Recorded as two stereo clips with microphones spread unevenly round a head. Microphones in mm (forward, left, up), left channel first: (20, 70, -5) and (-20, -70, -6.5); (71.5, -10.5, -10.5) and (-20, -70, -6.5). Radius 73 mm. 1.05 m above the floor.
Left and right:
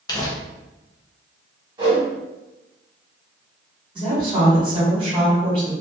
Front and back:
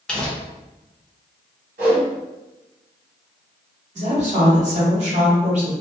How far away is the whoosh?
About 1.5 m.